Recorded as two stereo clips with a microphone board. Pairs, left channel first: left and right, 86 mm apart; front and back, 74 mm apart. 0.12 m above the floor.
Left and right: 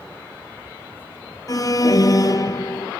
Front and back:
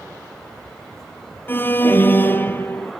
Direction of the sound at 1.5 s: 55° left.